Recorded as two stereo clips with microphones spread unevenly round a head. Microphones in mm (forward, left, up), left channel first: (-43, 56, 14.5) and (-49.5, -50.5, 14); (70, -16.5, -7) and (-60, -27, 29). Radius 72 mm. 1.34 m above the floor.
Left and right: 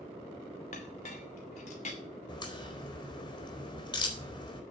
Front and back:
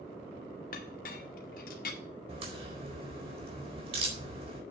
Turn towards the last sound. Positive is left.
turn(degrees=135)